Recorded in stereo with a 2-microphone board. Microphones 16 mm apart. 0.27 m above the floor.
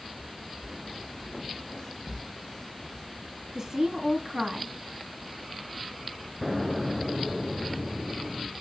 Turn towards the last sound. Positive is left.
turn(degrees=0)  # may be behind; listen again after turning